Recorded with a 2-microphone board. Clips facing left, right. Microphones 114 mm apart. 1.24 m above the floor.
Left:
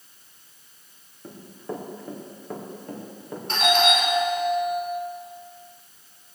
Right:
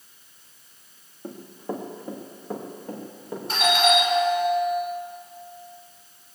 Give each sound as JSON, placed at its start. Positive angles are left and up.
{"t": 1.2, "sound": "running footsteps", "side_deg": -25, "distance_m": 3.0}
{"t": 3.5, "sound": "a doorbell", "side_deg": -5, "distance_m": 5.5}